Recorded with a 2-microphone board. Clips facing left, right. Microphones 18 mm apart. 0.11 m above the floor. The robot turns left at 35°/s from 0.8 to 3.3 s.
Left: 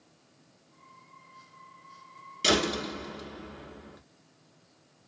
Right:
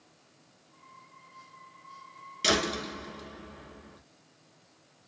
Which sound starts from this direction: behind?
A door slam, at 2.4 s.